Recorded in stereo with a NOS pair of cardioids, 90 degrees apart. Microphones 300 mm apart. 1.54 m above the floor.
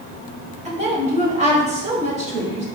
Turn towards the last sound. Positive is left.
turn(degrees=-20)